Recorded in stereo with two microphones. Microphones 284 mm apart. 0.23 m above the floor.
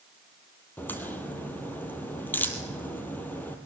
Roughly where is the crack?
Centre.